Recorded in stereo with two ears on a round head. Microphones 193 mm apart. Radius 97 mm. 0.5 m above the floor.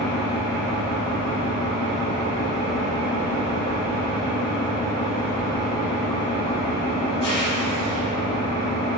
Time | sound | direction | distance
0.0 | an engine running | 25° left (ahead or behind) | 0.8 m